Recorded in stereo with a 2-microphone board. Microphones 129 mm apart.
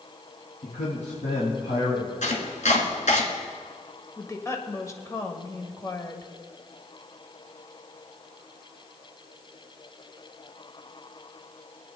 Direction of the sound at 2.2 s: 75° left (ahead or behind).